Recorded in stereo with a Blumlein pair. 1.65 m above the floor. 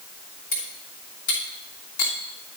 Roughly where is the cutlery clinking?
Ahead left.